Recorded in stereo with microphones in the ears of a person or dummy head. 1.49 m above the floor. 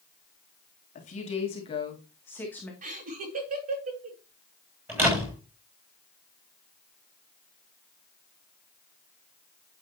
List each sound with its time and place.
0.9 s a woman speaking: 35° left (ahead or behind), 2.5 m; by 2.7 s 5° left (ahead or behind), 2.5 m
2.8 s laughter: 40° right (ahead or behind), 2 m
4.9 s a door slam: 10° right (ahead or behind), 7.5 m